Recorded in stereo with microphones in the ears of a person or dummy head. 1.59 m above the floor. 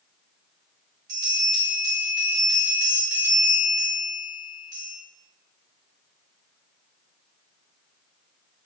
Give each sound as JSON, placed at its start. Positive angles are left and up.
{"t": 1.1, "sound": "a bell", "side_deg": -75, "distance_m": 1.7}